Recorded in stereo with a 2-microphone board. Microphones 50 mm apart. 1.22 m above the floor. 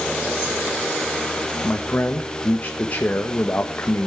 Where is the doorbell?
I don't hear a doorbell.